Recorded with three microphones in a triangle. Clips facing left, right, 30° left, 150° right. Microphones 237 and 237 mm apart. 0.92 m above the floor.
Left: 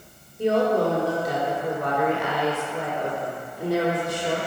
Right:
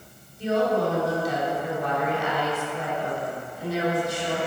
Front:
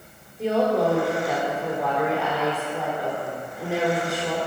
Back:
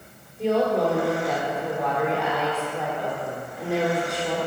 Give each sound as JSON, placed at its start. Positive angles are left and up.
{"t": 0.4, "sound": "a woman speaking", "azimuth_deg": 120, "distance_m": 2.5}